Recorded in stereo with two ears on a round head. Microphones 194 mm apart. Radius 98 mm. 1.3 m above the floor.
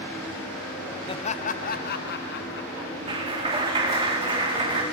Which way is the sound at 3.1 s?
25° right (ahead or behind).